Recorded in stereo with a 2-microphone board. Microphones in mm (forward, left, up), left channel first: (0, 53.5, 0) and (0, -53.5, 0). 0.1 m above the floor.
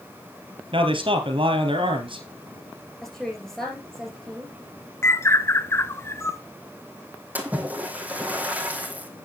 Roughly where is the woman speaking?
Centre.